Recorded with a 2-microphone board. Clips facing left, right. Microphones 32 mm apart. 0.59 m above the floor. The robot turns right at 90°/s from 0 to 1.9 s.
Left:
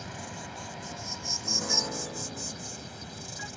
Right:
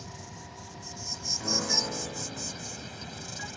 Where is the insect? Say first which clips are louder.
Left 5 dB; 45° left; by 3.6 s 140° right.